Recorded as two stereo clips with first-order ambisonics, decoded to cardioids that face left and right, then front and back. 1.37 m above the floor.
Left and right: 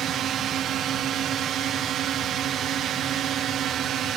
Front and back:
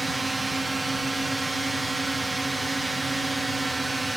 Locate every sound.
0.0 s a drone: 100° right